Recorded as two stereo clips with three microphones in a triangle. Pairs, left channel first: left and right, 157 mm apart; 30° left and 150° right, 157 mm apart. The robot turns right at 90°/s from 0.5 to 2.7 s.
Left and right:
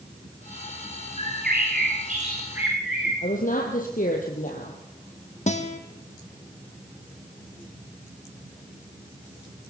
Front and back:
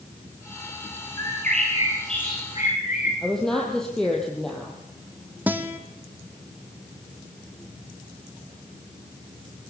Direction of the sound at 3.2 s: 115° left.